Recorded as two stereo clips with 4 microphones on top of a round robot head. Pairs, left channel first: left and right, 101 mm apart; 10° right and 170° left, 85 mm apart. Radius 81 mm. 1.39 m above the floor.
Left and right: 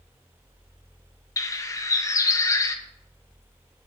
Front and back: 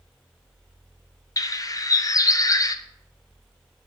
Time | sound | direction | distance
1.4 | a bird | 35° left | 1.0 m